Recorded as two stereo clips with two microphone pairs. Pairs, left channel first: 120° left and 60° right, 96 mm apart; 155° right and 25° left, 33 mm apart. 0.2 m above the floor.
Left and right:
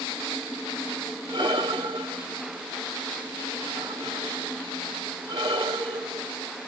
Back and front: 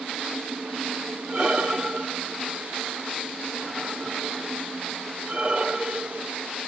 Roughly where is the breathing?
Ahead right.